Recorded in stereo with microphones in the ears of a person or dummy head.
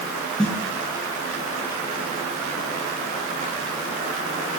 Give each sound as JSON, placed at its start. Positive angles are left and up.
{"t": 0.4, "sound": "a snare drum", "side_deg": 0, "distance_m": 9.0}